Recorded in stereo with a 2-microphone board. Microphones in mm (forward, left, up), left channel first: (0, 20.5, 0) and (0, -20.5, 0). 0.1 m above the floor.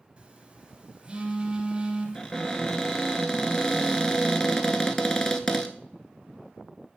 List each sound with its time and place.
0.2 s a phone buzzing: 20° right (ahead or behind), 1.8 m
2.1 s a cupboard door: 20° left (ahead or behind), 0.7 m